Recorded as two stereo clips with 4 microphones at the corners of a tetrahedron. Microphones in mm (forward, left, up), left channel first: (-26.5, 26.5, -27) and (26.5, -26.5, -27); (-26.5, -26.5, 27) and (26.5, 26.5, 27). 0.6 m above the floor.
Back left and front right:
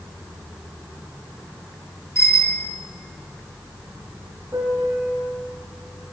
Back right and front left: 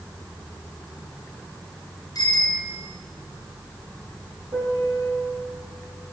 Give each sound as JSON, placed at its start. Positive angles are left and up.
{"t": 2.1, "sound": "a bicycle bell", "azimuth_deg": -175, "distance_m": 4.0}
{"t": 4.5, "sound": "a piano", "azimuth_deg": 10, "distance_m": 3.5}